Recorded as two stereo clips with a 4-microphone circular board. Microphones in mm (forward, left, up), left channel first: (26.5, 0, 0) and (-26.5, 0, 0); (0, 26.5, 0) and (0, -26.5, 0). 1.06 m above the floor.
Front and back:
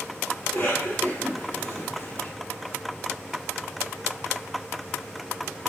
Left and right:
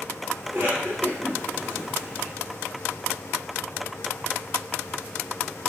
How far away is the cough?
About 2.0 m.